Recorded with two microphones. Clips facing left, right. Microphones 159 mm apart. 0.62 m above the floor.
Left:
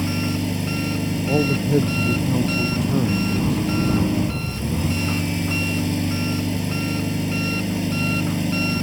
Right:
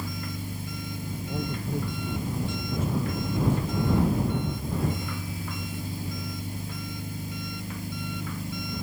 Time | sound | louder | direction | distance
0.0 | an engine running | left 13 dB | 85° left | ?
1.3 | a man speaking | left 13 dB | 70° left (ahead or behind) | ?